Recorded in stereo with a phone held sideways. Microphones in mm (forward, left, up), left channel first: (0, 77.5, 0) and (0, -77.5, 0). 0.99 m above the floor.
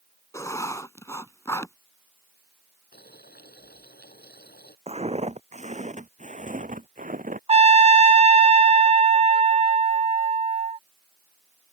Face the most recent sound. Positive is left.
turn(degrees=-40)  # may be behind; listen again after turning